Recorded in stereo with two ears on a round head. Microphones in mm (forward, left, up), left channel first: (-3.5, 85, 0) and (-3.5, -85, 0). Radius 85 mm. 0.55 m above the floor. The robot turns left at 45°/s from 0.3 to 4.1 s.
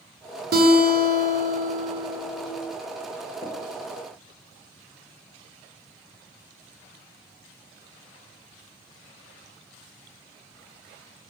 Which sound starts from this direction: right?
A guitar, at 0.5 s.